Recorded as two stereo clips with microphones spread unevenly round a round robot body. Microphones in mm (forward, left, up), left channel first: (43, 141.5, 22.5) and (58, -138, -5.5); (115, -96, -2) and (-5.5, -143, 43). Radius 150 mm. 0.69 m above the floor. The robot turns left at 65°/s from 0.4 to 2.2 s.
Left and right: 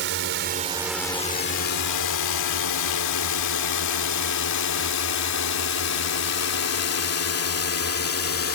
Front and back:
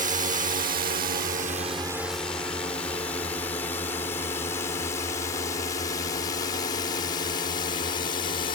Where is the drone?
135° right; by 8.6 s 60° left.